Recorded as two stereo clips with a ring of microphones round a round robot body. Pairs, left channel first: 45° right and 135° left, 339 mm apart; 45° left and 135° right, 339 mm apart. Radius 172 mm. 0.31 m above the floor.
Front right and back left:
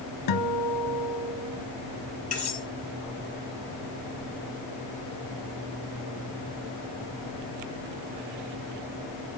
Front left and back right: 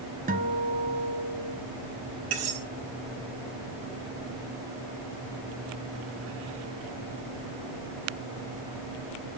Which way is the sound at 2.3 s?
115° right.